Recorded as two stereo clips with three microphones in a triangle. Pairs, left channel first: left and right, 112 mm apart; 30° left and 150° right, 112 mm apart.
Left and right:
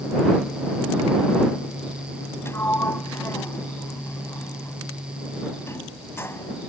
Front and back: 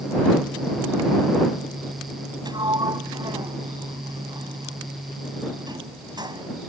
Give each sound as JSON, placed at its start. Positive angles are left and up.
{"t": 2.5, "sound": "a sliding door", "azimuth_deg": 160}